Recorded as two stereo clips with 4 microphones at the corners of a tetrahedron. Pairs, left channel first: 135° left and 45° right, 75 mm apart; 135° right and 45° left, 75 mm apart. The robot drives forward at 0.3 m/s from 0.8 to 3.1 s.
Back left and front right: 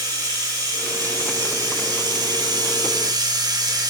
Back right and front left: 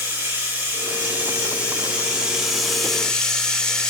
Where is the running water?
20° right, 1.0 m; by 3.9 s 55° right, 0.5 m.